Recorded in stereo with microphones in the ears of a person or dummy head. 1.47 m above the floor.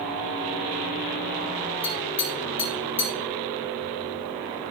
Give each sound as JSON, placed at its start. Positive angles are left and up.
{"t": 1.8, "sound": "tapping", "side_deg": 15, "distance_m": 6.0}